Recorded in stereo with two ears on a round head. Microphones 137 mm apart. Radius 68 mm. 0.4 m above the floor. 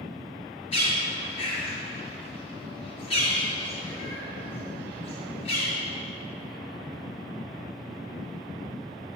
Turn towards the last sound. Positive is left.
turn(degrees=35)  # may be behind; listen again after turning